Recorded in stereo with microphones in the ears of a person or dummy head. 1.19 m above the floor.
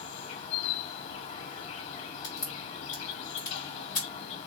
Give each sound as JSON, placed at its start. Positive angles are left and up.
{"t": 0.0, "sound": "an insect", "side_deg": 45, "distance_m": 0.8}
{"t": 2.2, "sound": "a crack", "side_deg": 25, "distance_m": 1.6}